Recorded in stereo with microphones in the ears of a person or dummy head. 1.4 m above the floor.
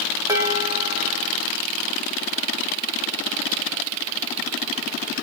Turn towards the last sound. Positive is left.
turn(degrees=-10)  # may be behind; listen again after turning